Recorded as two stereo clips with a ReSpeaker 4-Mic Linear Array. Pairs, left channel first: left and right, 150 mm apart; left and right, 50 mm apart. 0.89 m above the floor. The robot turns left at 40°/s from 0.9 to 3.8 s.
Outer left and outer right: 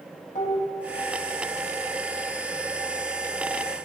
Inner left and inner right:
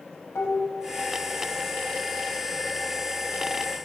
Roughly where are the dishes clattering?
Left.